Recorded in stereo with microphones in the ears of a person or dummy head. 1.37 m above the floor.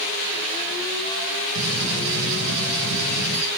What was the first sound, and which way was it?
A gunshot, 75° right (ahead or behind).